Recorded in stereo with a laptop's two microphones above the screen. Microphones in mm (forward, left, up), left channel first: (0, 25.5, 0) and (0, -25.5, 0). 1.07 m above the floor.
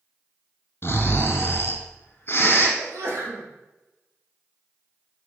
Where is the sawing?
I don't hear sawing.